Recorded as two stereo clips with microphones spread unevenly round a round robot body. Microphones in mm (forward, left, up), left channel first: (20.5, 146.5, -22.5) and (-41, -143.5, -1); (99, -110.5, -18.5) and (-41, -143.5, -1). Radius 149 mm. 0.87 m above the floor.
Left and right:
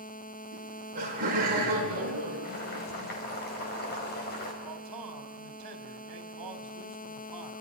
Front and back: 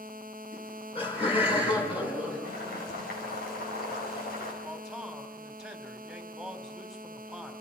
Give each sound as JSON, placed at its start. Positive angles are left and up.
{"t": 0.5, "sound": "laughter", "azimuth_deg": -35, "distance_m": 10.0}
{"t": 2.4, "sound": "boiling", "azimuth_deg": 20, "distance_m": 5.5}
{"t": 4.6, "sound": "a man speaking", "azimuth_deg": -75, "distance_m": 3.5}